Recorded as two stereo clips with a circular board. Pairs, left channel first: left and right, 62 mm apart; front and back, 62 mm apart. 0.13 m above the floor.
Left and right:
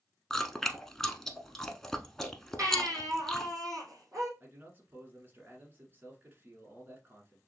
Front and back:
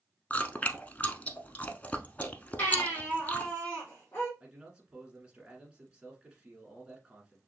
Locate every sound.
0.3 s chewing: 15° left, 0.7 m
2.6 s a baby crying: 60° right, 4 m
4.4 s a man speaking: 115° right, 1.5 m